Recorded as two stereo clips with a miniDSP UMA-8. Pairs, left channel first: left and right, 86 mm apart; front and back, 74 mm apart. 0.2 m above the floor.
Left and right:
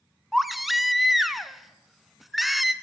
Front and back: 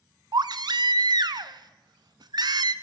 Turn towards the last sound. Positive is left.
turn(degrees=180)